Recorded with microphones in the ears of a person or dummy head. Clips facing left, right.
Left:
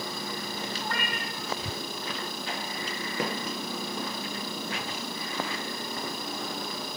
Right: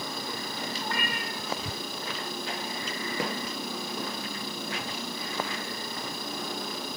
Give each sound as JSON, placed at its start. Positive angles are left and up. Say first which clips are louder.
{"t": 0.8, "sound": "a cat meowing", "louder": "even", "side_deg": -5, "distance_m": 5.0}